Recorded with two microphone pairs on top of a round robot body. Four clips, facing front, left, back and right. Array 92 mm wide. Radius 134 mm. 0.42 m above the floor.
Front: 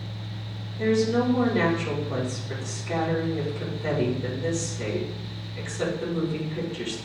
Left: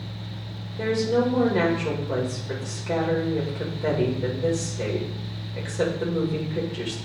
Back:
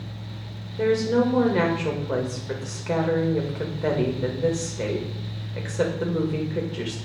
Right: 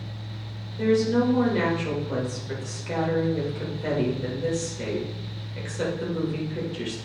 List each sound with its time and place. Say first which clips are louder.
0.8 s a woman speaking: right 1 dB, back 2 dB; 155° left, 2 m